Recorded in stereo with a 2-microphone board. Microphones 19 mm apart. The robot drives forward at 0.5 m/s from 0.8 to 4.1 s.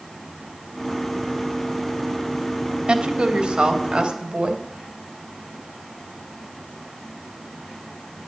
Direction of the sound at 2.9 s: 70° right (ahead or behind).